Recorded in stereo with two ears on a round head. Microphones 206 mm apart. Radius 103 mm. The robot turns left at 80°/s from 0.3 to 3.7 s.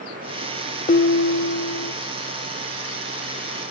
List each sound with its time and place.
0.9 s dishes clattering: 145° left, 1.1 m; by 1.9 s 60° left, 1.1 m